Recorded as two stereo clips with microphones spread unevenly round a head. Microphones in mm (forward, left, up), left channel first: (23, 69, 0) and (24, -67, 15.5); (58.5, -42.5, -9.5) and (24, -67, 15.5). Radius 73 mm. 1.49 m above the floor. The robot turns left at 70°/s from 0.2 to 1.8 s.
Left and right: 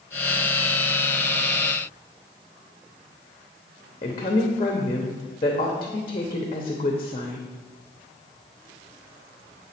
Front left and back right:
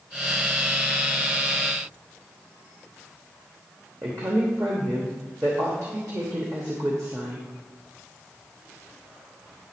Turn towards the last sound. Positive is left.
turn(degrees=150)